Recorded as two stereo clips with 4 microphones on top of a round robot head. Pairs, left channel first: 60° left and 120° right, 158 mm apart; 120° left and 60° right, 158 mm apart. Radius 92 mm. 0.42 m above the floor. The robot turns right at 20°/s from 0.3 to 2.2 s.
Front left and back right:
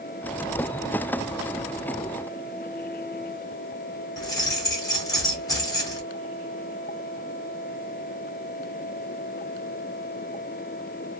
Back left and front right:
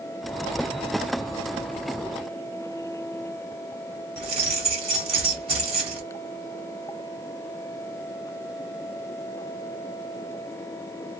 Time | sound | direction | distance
4.2 | keys jangling | 10° right | 1.6 m